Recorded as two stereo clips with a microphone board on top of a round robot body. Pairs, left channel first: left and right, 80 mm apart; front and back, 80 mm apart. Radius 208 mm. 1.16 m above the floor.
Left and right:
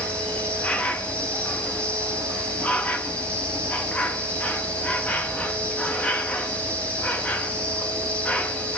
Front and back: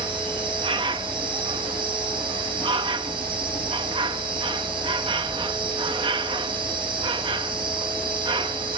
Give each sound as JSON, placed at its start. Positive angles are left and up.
{"t": 0.0, "sound": "an insect", "azimuth_deg": 165, "distance_m": 1.1}